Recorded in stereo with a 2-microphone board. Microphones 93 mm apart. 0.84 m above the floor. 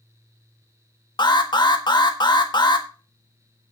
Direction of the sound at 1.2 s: 50° left (ahead or behind).